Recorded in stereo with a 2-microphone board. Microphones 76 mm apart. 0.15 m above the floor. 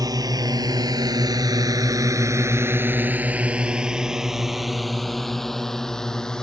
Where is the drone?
55° right (ahead or behind); by 6.4 s 10° left (ahead or behind).